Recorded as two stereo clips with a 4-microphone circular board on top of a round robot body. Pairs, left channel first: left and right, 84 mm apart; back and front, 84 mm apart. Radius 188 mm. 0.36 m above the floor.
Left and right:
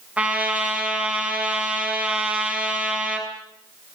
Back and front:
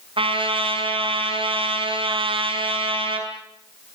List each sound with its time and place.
0.2 s a trumpet: 15° right, 5.5 m